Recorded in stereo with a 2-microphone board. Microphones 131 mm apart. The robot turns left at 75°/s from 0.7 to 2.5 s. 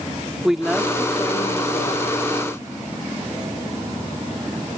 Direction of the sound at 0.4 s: 175° right.